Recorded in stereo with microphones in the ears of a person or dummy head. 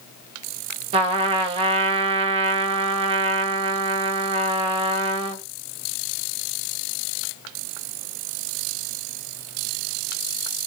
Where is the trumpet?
35° right (ahead or behind), 0.8 m.